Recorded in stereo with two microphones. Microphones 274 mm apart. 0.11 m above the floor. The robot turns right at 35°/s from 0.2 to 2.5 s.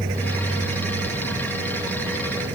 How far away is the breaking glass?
No breaking glass in this recording.